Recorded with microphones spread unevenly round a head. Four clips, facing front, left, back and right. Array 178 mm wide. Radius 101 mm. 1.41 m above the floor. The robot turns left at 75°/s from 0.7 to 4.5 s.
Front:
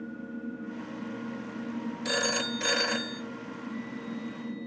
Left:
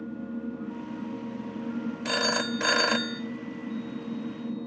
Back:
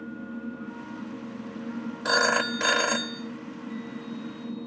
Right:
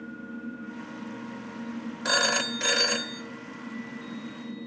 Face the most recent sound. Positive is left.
turn(degrees=25)